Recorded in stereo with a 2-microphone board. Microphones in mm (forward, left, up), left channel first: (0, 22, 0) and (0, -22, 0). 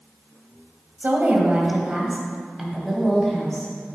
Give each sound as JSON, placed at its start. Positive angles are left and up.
{"t": 1.0, "sound": "a woman speaking", "side_deg": -40, "distance_m": 1.7}